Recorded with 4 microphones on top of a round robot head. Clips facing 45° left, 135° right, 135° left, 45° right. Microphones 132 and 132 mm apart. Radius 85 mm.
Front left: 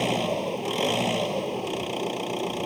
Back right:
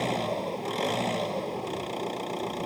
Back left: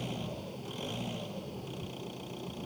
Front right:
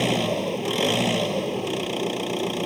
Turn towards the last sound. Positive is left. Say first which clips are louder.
# front left 3 dB, front right 16 dB
turn(degrees=-30)